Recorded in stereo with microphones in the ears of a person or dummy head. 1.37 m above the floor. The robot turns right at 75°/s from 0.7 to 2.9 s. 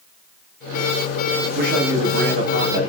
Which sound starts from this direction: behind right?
A man speaking, at 1.6 s.